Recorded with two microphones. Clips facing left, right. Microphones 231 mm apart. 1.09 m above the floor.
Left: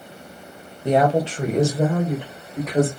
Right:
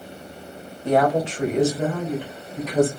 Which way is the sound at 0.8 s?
15° left (ahead or behind).